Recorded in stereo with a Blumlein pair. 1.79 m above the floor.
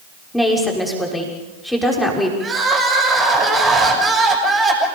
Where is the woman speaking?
5° left, 6 m.